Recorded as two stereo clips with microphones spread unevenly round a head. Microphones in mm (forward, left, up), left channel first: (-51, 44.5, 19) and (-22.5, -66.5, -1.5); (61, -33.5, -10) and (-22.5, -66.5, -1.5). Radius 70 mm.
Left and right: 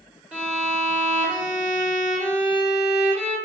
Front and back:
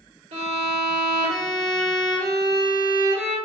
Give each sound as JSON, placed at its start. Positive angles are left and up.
{"t": 0.3, "sound": "a violin", "azimuth_deg": -160, "distance_m": 2.0}